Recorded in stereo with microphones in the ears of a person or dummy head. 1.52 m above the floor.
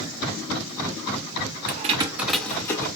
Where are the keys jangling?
50° right (ahead or behind), 0.6 m; by 2.9 s 20° left (ahead or behind), 1.4 m.